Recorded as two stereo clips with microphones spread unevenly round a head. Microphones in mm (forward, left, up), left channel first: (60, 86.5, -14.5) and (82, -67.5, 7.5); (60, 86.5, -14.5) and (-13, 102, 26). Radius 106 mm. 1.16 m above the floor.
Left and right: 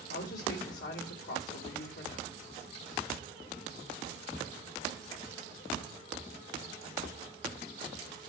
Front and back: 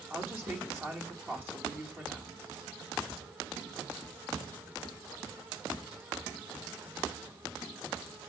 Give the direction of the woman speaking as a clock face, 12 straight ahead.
9 o'clock.